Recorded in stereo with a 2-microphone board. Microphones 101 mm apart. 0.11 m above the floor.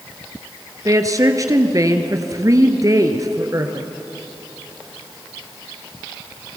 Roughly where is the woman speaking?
Right.